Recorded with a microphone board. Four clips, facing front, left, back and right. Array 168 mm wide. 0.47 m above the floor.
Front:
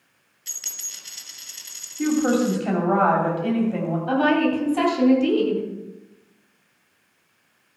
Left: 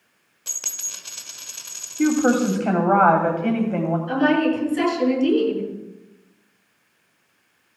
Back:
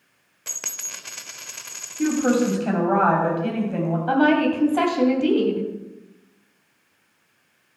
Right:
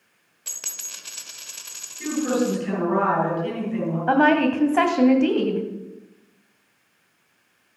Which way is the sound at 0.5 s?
175° left.